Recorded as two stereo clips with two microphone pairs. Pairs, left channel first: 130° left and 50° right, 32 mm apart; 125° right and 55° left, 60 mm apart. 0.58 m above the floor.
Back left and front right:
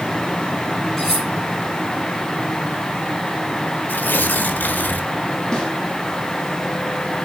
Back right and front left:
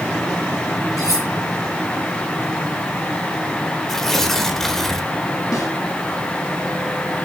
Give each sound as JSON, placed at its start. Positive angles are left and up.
{"t": 1.0, "sound": "cutlery clinking", "azimuth_deg": -155, "distance_m": 8.5}
{"t": 3.9, "sound": "tearing paper", "azimuth_deg": 145, "distance_m": 1.3}
{"t": 5.5, "sound": "a snare drum", "azimuth_deg": -160, "distance_m": 8.0}